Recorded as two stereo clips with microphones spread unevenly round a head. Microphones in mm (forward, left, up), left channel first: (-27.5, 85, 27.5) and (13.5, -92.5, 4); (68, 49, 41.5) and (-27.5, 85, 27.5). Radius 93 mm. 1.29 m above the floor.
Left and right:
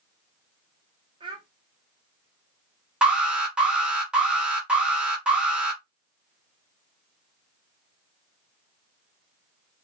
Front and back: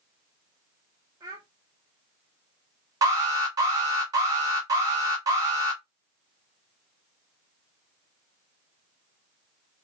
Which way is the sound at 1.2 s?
135° right.